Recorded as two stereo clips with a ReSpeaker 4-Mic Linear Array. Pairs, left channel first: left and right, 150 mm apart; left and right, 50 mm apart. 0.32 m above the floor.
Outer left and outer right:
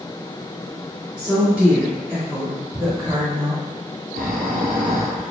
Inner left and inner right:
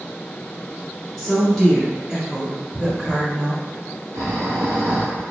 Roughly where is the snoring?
Right.